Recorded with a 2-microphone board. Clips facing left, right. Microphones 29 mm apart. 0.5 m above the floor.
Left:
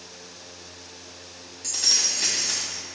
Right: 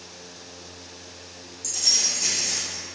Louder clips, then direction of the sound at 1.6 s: Even; 50° left (ahead or behind).